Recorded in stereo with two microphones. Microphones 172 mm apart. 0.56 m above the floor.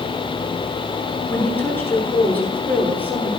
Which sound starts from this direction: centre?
A woman speaking, at 1.3 s.